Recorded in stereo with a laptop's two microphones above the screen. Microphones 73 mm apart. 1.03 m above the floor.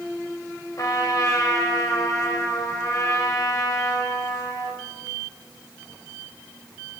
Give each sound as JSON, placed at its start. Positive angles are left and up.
{"t": 0.8, "sound": "a trumpet", "side_deg": 50, "distance_m": 4.0}